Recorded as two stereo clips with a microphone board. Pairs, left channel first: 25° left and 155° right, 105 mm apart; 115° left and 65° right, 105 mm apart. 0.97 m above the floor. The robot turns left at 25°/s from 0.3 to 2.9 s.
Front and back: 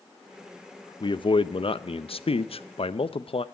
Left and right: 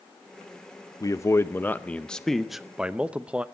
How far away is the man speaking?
About 0.6 m.